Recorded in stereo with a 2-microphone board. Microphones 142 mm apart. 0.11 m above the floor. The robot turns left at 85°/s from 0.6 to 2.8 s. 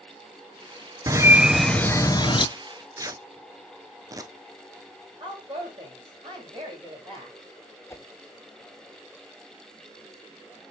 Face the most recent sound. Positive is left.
turn(degrees=20)  # may be behind; listen again after turning